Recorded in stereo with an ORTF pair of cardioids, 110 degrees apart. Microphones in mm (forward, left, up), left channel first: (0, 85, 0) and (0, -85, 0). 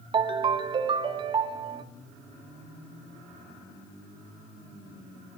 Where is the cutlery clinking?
No cutlery clinking in this recording.